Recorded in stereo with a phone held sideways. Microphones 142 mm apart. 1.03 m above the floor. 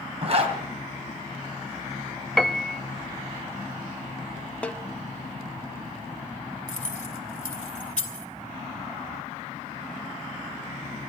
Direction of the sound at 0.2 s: 45° right (ahead or behind).